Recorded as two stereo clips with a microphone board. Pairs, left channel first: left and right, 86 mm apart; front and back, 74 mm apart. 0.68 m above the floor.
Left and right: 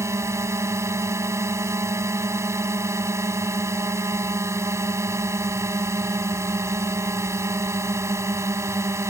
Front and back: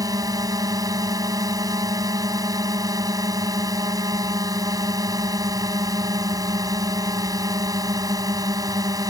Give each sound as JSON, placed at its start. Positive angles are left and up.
{"t": 0.0, "sound": "a drone", "azimuth_deg": -145}